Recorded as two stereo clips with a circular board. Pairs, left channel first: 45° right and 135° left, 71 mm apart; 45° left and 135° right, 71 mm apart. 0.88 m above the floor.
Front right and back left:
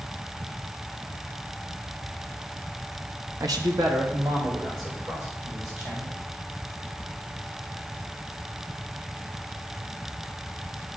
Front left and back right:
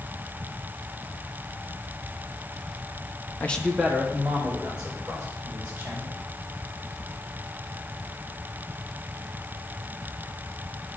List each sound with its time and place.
3.4 s a man speaking: 105° left, 0.5 m; by 6.1 s 160° left, 4 m